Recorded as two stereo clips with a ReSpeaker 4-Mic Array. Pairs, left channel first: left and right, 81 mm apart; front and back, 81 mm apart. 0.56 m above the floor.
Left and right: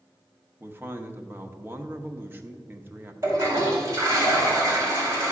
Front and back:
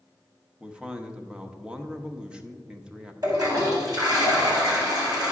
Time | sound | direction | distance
0.6 | a man speaking | 115° right | 0.8 m
3.2 | a toilet flushing | 145° right | 4 m